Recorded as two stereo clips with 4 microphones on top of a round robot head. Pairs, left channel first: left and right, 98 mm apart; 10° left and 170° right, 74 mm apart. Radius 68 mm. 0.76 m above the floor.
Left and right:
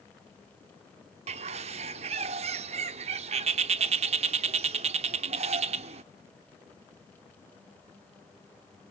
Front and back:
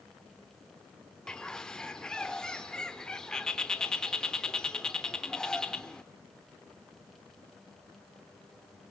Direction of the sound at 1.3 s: 75° right.